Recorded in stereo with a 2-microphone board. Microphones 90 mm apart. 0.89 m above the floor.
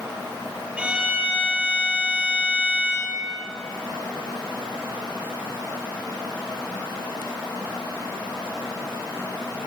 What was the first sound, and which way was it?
A violin, 15° right (ahead or behind).